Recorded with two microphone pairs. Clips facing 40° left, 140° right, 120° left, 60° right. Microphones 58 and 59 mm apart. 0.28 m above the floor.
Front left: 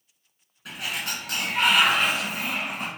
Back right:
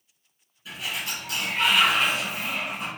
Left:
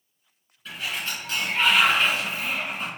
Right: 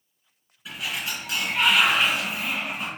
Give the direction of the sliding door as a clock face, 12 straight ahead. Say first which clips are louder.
Front left 1 dB, even; 11 o'clock.